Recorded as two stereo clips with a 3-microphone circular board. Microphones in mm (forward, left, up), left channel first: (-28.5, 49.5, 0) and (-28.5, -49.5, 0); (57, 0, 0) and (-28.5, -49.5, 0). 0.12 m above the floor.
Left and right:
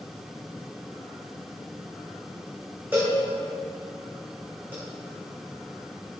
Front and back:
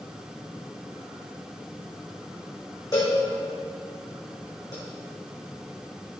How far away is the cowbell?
About 2.5 m.